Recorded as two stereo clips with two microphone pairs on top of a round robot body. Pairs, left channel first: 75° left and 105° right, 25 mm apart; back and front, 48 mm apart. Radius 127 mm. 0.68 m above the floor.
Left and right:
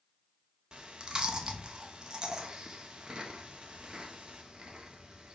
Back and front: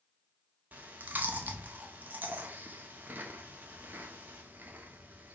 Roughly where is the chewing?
Ahead right.